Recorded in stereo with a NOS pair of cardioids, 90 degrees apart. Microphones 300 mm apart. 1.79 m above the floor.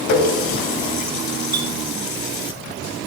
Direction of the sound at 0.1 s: 70° left.